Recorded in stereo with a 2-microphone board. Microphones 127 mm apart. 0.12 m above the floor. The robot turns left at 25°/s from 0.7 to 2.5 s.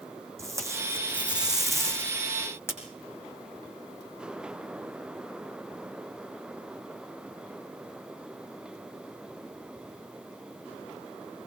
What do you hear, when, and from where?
0.4 s tape being pulled: 155° right, 4.5 m; by 2.8 s 160° left, 4.5 m